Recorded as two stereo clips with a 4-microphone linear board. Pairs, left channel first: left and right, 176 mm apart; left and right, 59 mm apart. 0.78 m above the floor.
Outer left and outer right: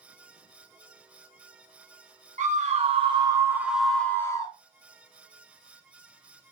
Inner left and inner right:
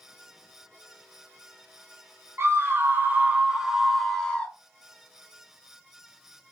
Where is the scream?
45° right (ahead or behind), 1.1 m; by 4.5 s 20° left (ahead or behind), 1.0 m.